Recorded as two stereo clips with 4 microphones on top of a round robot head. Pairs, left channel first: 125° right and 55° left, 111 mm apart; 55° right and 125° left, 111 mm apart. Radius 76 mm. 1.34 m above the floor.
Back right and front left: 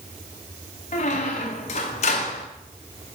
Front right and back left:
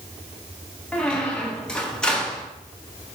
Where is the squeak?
140° right, 0.6 m.